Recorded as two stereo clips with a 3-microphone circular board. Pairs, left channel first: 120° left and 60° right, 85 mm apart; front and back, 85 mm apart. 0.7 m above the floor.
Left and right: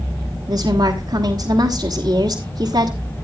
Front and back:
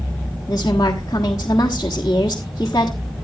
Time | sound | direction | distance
0.5 | a woman speaking | 45° right | 1.4 m